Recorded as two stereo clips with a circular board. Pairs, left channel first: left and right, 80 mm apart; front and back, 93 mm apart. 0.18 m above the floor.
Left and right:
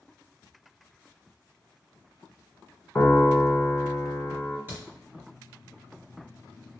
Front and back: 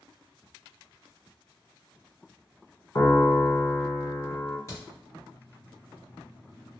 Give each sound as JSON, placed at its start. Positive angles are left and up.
{"t": 3.0, "sound": "a piano", "azimuth_deg": 35, "distance_m": 0.6}
{"t": 4.7, "sound": "a crack", "azimuth_deg": -40, "distance_m": 1.7}